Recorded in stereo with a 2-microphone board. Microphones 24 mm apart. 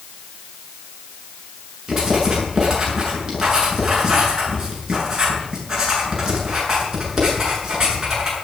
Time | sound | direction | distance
1.9 | writing | 20° right (ahead or behind) | 7.5 m